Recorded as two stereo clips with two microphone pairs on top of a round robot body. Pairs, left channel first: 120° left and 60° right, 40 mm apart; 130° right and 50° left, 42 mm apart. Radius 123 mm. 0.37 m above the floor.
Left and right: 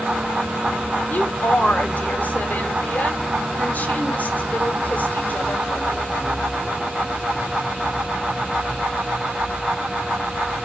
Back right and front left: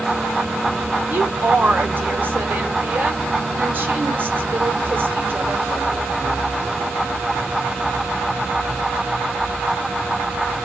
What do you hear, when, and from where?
1.1 s a woman speaking: 80° left, 2.5 m